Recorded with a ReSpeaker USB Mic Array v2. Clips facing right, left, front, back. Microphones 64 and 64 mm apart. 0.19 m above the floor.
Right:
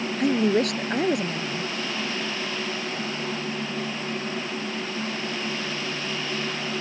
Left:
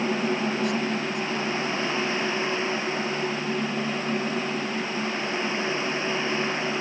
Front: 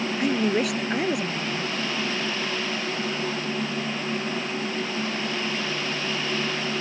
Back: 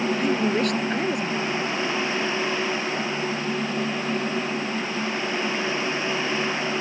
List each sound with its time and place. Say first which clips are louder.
0.2 s a woman speaking: right 4 dB, front 2 dB; 85° right